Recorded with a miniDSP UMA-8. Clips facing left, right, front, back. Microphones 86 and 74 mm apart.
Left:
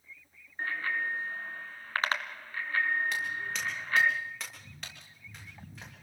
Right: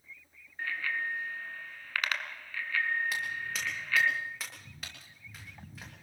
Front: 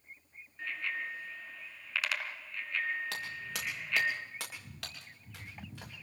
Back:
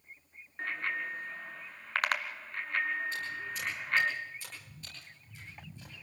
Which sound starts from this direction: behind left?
A bicycle bell, at 0.6 s.